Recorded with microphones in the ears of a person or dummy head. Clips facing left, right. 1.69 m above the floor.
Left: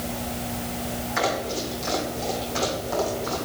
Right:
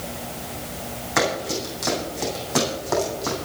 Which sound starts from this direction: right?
Running footsteps, at 1.2 s.